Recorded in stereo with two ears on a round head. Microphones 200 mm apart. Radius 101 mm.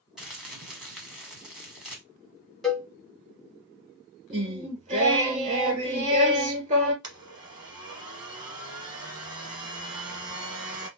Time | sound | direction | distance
0.2 | crumpling | centre (ahead or behind) | 1.4 m
2.6 | a cowbell | centre (ahead or behind) | 1.3 m
4.3 | singing | 35° right (ahead or behind) | 1.8 m
7.0 | a blender | 20° right (ahead or behind) | 1.1 m